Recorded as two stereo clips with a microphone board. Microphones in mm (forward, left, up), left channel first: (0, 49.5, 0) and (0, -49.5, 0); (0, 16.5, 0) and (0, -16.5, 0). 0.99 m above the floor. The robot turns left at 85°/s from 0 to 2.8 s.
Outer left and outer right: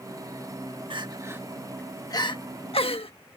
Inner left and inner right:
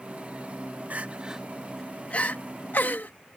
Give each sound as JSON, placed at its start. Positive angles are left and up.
{"t": 0.9, "sound": "crying", "side_deg": -60}